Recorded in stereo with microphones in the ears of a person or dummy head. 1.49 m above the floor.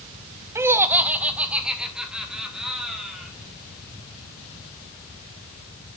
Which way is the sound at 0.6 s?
15° right (ahead or behind).